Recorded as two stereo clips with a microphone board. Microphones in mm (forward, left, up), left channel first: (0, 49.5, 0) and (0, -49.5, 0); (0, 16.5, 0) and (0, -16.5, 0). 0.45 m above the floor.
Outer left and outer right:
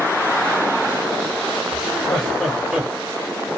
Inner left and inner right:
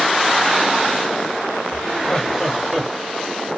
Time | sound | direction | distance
1.7 | laughter | 20° left (ahead or behind) | 1.4 m